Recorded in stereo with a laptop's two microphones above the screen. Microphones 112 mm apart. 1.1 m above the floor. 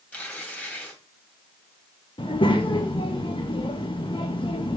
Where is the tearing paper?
10° left (ahead or behind), 2.5 m.